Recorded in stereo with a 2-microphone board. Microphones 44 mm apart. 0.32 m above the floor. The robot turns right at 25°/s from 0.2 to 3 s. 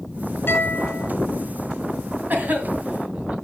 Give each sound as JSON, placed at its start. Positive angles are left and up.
{"t": 0.5, "sound": "a guitar", "side_deg": 55, "distance_m": 4.0}
{"t": 2.3, "sound": "a cough", "side_deg": -45, "distance_m": 2.5}